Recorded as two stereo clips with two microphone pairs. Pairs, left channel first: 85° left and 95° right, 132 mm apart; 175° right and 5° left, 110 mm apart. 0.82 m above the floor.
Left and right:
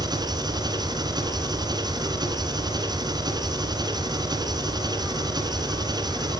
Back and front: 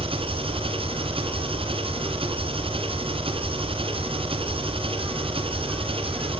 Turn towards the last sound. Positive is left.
turn(degrees=-35)